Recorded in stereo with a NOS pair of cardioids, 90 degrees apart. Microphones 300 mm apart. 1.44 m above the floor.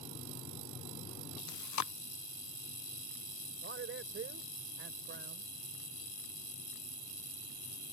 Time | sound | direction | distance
1.5 | chewing | 70° left | ?
3.6 | a man speaking | 40° right | ?